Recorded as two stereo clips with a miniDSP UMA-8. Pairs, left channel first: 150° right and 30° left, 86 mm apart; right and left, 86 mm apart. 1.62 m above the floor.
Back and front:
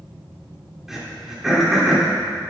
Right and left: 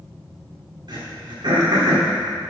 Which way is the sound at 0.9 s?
115° left.